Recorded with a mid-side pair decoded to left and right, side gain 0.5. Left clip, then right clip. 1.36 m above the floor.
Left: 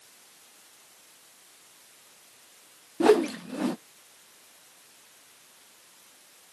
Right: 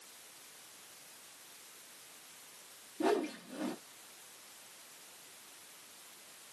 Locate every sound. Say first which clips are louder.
3.0 s a whoosh: left 12 dB; 70° left, 0.6 m